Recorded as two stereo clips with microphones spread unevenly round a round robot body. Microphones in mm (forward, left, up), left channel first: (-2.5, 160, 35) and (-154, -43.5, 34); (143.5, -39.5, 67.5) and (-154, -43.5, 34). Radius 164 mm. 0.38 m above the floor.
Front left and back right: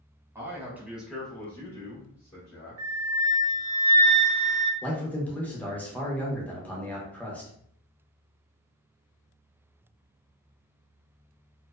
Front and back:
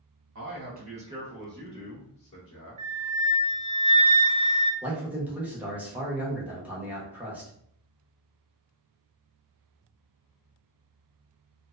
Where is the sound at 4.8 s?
125° left, 0.8 m.